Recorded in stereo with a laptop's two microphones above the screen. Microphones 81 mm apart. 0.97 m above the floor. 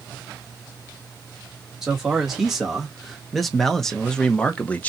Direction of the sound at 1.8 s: 5° right (ahead or behind).